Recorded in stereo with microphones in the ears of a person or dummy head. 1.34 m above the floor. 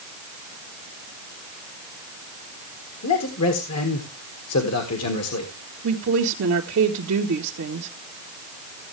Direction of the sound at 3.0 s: 80° left.